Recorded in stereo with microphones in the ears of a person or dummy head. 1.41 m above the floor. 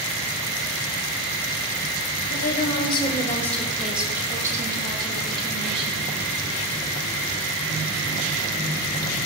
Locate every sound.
2.3 s a woman speaking: 50° left (ahead or behind), 1.5 m; by 6.1 s 35° right (ahead or behind), 3.5 m